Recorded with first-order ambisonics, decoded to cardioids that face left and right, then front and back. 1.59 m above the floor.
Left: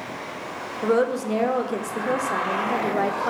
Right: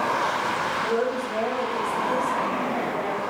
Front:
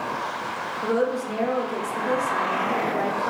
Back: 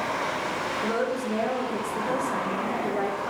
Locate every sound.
0.8 s a woman speaking: 85° left, 0.5 m